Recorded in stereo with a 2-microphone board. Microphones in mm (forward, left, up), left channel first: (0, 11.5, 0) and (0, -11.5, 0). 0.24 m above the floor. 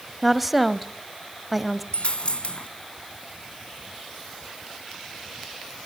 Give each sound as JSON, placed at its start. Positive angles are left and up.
{"t": 0.2, "sound": "a woman speaking", "side_deg": -5, "distance_m": 1.0}
{"t": 1.9, "sound": "a dropped coin", "side_deg": 55, "distance_m": 0.9}